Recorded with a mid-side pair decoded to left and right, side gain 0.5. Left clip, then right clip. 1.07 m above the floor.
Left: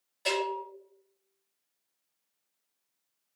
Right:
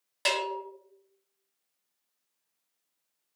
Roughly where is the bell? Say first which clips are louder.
Right 1 dB; right.